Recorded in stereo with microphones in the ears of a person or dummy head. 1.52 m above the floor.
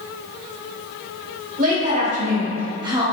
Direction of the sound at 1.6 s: 50° right (ahead or behind).